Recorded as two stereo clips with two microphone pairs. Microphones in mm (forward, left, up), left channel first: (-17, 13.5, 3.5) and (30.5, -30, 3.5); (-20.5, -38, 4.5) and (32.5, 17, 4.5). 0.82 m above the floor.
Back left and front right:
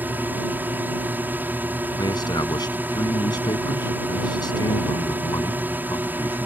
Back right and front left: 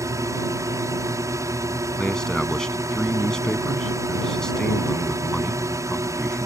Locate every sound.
0.0 s a drone: 15° left
2.0 s a man speaking: 145° left